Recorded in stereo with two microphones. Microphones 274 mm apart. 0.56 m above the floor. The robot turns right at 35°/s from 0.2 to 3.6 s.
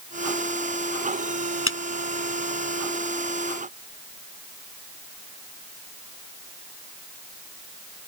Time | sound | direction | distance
1.7 | a clap | 50° left (ahead or behind) | ?